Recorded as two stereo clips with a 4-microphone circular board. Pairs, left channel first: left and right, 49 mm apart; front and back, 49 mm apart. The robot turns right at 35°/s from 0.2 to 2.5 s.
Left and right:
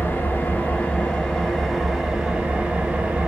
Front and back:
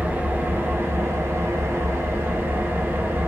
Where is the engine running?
130° left, 0.9 m; by 3.3 s 150° right, 0.9 m.